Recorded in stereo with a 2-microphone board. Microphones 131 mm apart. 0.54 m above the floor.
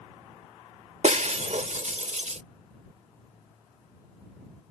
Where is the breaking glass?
60° right (ahead or behind).